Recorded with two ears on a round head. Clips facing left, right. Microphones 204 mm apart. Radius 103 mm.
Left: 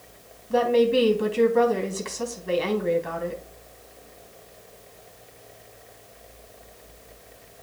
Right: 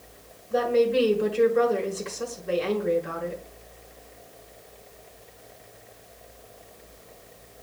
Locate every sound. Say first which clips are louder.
0.5 s a woman speaking: left 2 dB; 70° left (ahead or behind), 3.5 m